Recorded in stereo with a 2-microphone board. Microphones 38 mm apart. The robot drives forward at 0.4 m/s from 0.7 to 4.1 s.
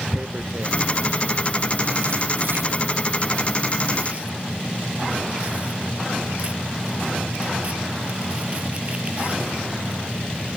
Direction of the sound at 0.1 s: 55° right (ahead or behind).